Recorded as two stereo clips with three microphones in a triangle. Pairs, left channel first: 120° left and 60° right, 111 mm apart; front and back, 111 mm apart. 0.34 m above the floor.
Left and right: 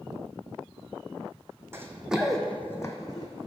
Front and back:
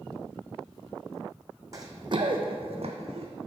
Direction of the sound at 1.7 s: 125° right.